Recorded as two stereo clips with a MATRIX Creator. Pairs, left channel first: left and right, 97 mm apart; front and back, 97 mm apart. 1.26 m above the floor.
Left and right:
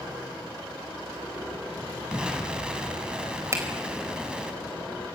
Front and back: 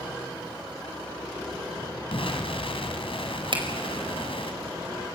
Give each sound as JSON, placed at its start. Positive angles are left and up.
{"t": 2.1, "sound": "an explosion", "azimuth_deg": -10, "distance_m": 3.0}
{"t": 3.5, "sound": "a finger snap", "azimuth_deg": -150, "distance_m": 4.5}